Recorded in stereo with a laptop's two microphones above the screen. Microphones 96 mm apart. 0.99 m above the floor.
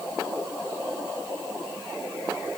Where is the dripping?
I don't hear dripping.